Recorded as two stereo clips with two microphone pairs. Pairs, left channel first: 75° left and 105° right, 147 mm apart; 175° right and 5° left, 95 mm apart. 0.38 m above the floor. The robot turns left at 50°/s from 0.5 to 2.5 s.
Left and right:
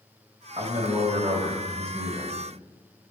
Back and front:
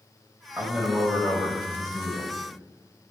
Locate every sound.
0.6 s a man speaking: 70° right, 2 m; by 2.3 s 155° right, 2 m